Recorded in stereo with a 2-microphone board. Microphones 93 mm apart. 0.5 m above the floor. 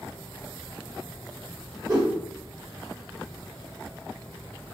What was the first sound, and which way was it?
A whoosh, 45° right (ahead or behind).